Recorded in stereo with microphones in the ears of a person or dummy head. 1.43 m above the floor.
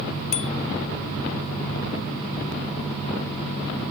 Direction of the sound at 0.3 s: 35° left (ahead or behind).